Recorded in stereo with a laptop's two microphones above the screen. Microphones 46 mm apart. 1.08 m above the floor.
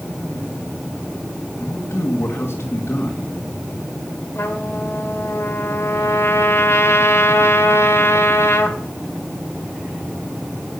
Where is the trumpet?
65° left (ahead or behind), 1.9 m.